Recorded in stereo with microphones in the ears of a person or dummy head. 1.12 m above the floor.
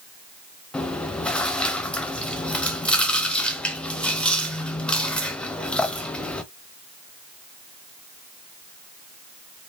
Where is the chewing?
5° left (ahead or behind), 0.7 m.